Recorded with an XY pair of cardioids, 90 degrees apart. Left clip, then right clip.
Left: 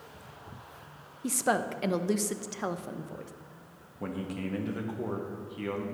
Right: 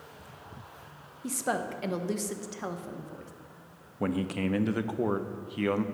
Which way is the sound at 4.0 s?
55° right.